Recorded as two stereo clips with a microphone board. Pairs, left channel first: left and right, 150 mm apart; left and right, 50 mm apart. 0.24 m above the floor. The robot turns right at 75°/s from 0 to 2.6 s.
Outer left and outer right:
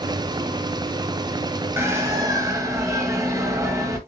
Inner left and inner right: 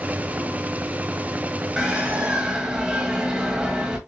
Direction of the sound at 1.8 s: 15° right (ahead or behind).